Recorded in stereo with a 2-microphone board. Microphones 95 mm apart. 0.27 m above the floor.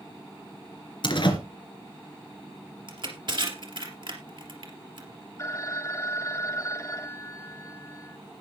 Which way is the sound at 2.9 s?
55° right (ahead or behind).